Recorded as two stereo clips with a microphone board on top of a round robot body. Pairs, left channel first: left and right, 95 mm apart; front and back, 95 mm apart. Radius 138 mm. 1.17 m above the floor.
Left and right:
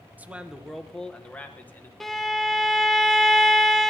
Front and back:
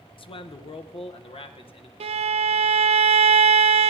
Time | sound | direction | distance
0.2 | a man speaking | 20° right | 1.0 m
2.0 | a violin | 175° left | 0.6 m